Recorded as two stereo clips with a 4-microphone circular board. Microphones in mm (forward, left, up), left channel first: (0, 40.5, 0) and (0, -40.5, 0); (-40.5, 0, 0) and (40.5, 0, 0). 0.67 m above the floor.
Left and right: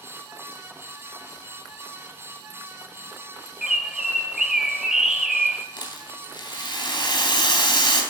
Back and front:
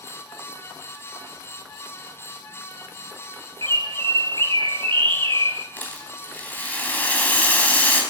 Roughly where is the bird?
Ahead.